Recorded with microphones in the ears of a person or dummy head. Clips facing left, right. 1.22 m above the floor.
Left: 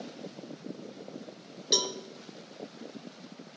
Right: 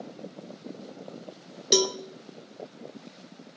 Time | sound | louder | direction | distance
1.7 | a cowbell | right 9 dB | 45° right (ahead or behind) | 0.5 m